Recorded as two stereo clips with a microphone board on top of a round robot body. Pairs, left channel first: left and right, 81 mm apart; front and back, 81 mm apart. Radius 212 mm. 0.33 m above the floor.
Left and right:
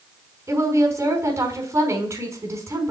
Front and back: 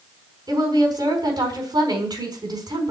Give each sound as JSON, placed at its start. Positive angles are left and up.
{"t": 0.5, "sound": "a woman speaking", "azimuth_deg": -145, "distance_m": 5.0}